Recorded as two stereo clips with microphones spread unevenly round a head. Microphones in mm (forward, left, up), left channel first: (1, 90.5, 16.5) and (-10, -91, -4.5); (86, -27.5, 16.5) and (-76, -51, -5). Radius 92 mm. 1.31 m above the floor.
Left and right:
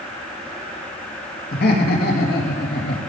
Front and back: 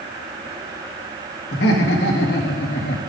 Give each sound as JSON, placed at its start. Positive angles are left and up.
{"t": 1.5, "sound": "laughter", "azimuth_deg": 45, "distance_m": 2.0}